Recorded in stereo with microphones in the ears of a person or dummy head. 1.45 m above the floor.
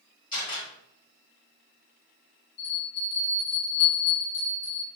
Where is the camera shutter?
25° left (ahead or behind), 1.4 m.